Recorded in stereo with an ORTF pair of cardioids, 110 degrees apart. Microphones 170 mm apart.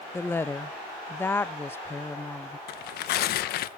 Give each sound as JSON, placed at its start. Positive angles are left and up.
{"t": 0.1, "sound": "a woman speaking", "azimuth_deg": 15, "distance_m": 0.6}
{"t": 2.7, "sound": "tearing paper", "azimuth_deg": 70, "distance_m": 1.0}